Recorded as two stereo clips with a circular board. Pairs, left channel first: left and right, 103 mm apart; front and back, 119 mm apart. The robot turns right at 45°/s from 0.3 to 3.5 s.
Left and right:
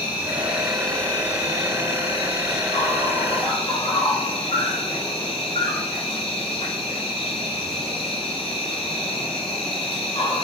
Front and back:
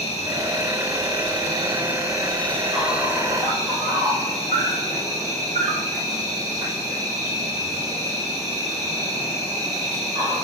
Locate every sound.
0.0 s an insect: 20° right, 4.5 m; by 10.4 s 125° left, 4.5 m